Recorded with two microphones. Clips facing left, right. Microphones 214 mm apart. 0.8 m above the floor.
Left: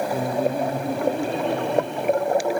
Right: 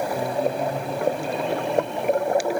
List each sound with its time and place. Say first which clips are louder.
0.1 s laughter: left 3 dB; 35° left (ahead or behind), 1.0 m; by 2.6 s 65° left (ahead or behind), 4 m